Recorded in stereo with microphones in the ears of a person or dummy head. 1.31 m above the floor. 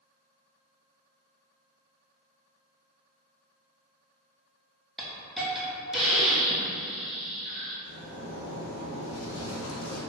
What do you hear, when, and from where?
5.0 s a hiss: centre (ahead or behind), 0.6 m
7.8 s a zipper: 90° left, 0.8 m